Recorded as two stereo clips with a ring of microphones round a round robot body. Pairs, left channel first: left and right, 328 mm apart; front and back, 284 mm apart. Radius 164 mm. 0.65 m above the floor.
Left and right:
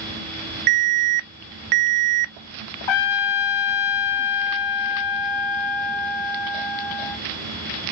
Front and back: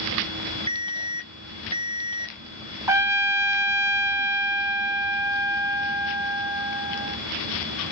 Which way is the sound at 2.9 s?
100° left.